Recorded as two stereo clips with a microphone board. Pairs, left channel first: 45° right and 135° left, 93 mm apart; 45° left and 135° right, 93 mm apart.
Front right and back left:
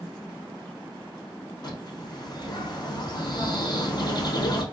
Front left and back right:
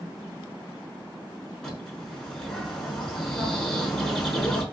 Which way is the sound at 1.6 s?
35° right.